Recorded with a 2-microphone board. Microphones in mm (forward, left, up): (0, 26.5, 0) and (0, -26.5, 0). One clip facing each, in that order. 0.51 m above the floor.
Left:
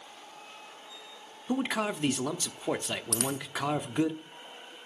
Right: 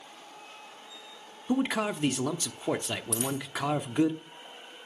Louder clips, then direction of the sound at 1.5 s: Right 2 dB; centre (ahead or behind).